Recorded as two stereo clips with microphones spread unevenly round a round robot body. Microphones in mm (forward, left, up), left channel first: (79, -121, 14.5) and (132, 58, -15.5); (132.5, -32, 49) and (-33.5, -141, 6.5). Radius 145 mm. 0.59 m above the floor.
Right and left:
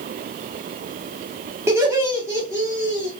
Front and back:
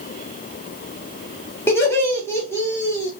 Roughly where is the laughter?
Behind left.